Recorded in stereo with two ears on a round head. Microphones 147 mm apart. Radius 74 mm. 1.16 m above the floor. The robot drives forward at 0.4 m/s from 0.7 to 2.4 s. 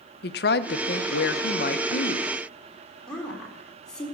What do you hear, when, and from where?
0.2 s a woman speaking: 65° left (ahead or behind), 0.8 m; by 2.3 s 45° left (ahead or behind), 1.0 m
3.1 s a woman speaking: 5° left (ahead or behind), 4 m